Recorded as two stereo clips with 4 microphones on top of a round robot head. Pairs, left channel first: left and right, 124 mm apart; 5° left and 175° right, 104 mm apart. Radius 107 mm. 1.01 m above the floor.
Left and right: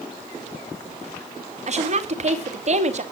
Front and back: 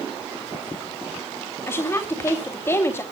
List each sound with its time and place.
1.7 s a woman speaking: 65° right, 3 m